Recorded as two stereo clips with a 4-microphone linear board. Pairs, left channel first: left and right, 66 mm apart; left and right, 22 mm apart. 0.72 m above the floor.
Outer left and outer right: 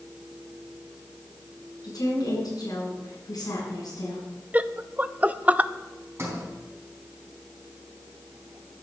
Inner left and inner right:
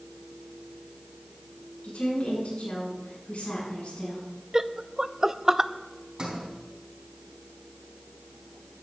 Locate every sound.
1.8 s a woman speaking: 75° left (ahead or behind), 8 m
4.5 s laughter: 25° right (ahead or behind), 0.5 m
6.2 s a sliding door: 40° right (ahead or behind), 4 m